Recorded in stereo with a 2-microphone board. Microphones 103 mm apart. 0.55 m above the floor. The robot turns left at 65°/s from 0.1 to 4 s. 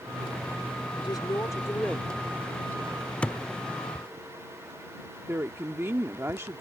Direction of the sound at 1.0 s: 80° left.